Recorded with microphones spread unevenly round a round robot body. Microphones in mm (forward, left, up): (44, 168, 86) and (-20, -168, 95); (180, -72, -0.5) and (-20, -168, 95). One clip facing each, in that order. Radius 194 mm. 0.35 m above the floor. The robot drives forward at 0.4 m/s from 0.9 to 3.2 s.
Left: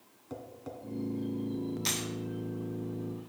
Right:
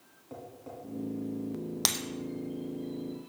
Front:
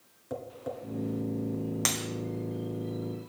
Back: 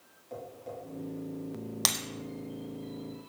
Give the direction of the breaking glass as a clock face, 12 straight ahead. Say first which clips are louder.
Left 1 dB, front 5 dB; 4 o'clock.